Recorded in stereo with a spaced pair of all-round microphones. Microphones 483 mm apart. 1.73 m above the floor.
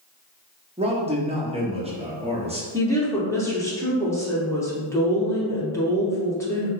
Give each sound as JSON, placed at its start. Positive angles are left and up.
{"t": 0.8, "sound": "a man speaking", "side_deg": -15, "distance_m": 0.5}
{"t": 2.7, "sound": "a woman speaking", "side_deg": 5, "distance_m": 0.7}